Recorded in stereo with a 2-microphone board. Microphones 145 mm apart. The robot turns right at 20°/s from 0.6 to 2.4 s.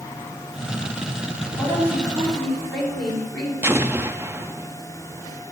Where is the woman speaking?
20° left (ahead or behind), 5 m; by 3.5 s 5° left (ahead or behind), 5 m.